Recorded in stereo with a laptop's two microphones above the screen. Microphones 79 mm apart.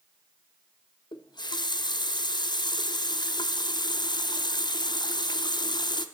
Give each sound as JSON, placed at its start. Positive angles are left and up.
{"t": 1.1, "sound": "a running tap", "side_deg": 65, "distance_m": 0.6}